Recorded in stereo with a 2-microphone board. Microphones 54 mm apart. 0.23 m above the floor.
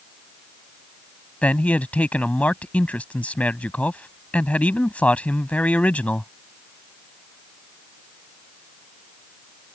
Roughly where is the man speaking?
Left.